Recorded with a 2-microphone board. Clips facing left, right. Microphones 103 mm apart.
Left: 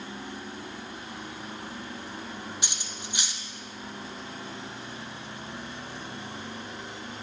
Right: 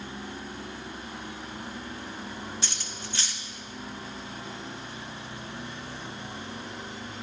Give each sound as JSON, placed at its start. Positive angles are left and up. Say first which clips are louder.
{"t": 2.6, "sound": "cutlery clinking", "louder": "right 1 dB", "side_deg": 15, "distance_m": 0.6}